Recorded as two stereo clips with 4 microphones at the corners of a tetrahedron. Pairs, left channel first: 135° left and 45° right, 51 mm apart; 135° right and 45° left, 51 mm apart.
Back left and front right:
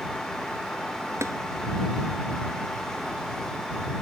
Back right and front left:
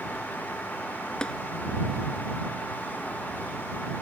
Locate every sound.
1.2 s tapping: 60° right